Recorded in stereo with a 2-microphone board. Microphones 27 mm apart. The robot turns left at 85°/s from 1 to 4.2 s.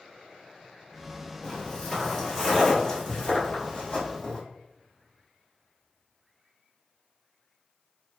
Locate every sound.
1.4 s footsteps: 25° left (ahead or behind), 1.2 m; by 4.4 s 20° left (ahead or behind), 1.7 m